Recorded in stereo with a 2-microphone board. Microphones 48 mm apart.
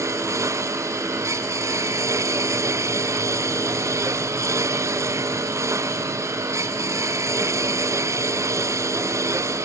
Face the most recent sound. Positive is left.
turn(degrees=-85)